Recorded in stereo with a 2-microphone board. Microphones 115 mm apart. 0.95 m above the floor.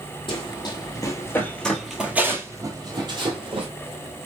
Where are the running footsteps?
45° left (ahead or behind), 1.3 m; by 3.7 s 50° right (ahead or behind), 1.4 m.